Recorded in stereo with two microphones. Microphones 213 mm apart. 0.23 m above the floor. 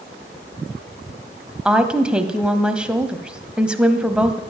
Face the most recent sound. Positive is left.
turn(degrees=-5)  # may be behind; listen again after turning